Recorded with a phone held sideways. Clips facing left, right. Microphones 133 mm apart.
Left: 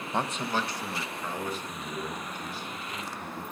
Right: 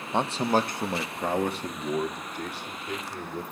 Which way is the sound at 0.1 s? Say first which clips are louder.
Right 6 dB; 15° right (ahead or behind).